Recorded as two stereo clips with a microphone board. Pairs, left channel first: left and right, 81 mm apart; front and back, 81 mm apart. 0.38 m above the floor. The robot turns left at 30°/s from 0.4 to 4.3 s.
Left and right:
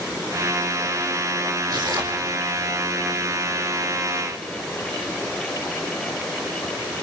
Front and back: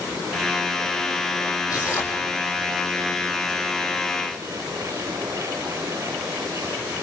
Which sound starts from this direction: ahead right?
Tearing paper, at 1.7 s.